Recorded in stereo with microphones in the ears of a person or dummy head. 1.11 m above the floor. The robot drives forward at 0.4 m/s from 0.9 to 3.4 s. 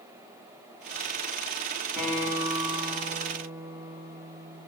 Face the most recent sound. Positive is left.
turn(degrees=0)  # may be behind; listen again after turning